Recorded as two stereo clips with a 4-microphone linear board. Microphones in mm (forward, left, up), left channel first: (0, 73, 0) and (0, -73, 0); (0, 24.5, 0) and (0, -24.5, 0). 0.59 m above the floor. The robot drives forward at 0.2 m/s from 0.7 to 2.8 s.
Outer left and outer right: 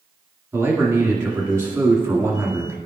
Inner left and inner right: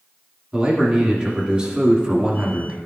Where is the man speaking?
15° right (ahead or behind), 1.5 m; by 2.8 s 20° right (ahead or behind), 1.2 m.